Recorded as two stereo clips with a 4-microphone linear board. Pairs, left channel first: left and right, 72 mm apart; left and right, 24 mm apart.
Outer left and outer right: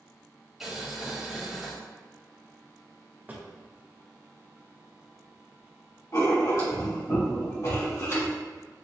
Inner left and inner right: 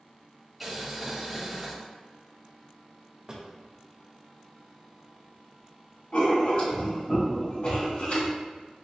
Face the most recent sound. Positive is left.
turn(degrees=50)  # may be behind; listen again after turning